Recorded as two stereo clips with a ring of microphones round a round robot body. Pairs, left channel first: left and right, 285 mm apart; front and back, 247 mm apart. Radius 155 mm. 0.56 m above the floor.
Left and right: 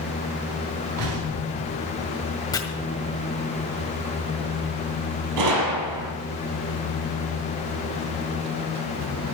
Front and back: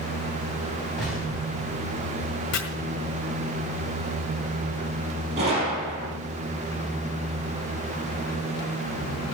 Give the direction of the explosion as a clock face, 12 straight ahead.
3 o'clock.